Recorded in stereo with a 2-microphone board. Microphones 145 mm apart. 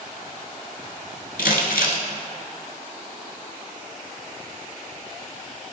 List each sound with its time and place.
1.4 s crumpling: 90° left, 1.3 m